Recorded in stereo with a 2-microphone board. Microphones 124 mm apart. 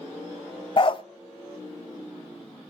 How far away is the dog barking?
About 0.5 m.